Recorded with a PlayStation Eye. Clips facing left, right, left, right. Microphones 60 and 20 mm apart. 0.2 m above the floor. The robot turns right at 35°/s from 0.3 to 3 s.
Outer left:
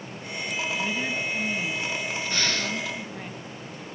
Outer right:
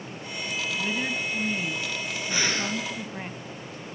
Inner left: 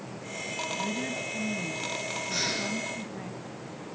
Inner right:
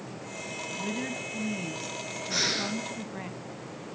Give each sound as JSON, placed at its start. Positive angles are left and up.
{"t": 0.8, "sound": "a woman speaking", "side_deg": -5, "distance_m": 1.2}
{"t": 2.3, "sound": "breathing", "side_deg": -10, "distance_m": 1.6}